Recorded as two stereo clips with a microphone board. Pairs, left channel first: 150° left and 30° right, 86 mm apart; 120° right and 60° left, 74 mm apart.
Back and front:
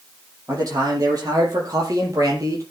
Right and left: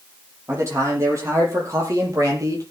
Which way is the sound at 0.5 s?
15° left.